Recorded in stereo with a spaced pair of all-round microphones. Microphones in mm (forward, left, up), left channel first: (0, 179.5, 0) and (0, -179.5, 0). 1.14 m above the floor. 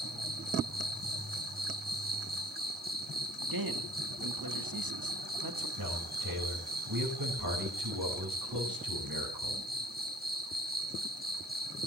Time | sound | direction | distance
0.0 | an insect | 25° right (ahead or behind) | 1.5 m
3.4 | a man speaking | 65° right (ahead or behind) | 1.9 m
5.8 | a man speaking | 55° right (ahead or behind) | 5.5 m